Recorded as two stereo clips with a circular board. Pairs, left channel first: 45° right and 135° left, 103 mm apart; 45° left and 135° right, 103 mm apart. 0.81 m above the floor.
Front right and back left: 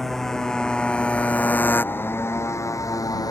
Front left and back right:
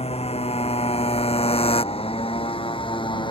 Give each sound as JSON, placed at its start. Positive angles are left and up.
{"t": 0.0, "sound": "a motorcycle", "azimuth_deg": 40}